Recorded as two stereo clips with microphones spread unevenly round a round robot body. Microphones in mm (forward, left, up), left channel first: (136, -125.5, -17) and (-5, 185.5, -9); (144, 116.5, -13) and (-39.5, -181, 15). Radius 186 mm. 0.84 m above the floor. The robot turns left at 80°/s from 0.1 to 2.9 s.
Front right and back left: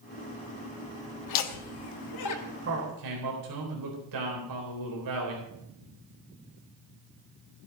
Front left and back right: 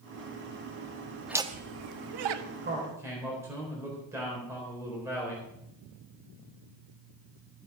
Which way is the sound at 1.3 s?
30° right.